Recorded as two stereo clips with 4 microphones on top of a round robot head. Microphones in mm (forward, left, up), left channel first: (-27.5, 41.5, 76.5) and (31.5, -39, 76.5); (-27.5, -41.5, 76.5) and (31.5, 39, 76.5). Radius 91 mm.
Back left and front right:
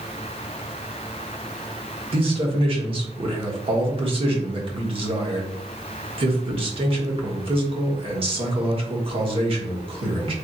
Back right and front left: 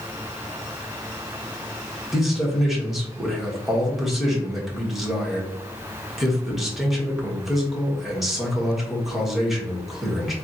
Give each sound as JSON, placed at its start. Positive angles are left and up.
{"t": 2.1, "sound": "a man speaking", "azimuth_deg": -35, "distance_m": 1.4}